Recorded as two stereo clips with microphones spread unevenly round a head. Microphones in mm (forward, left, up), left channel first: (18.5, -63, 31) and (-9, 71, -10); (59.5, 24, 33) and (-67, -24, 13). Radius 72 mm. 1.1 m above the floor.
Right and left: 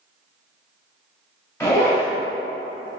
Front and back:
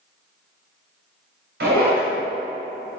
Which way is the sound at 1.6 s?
145° right.